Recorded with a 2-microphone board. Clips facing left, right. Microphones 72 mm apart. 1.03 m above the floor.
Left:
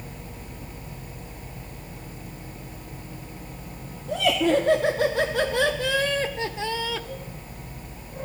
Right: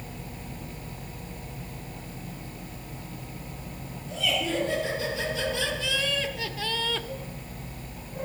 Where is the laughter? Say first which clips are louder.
Left 8 dB; 65° left (ahead or behind), 2 m; by 7.1 s centre (ahead or behind), 0.7 m.